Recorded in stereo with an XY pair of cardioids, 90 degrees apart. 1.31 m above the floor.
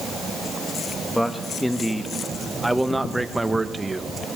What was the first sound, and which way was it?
A man speaking, 5° left.